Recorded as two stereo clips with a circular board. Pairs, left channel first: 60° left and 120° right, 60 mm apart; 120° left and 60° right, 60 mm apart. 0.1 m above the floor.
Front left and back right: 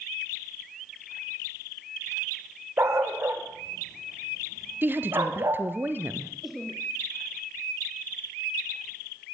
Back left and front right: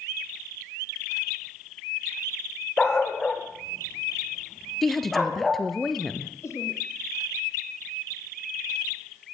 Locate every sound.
2.8 s a dog barking: 165° right, 3 m; by 5.7 s 150° right, 4 m
4.8 s a woman speaking: 155° right, 1.6 m
6.4 s laughter: 155° left, 4.5 m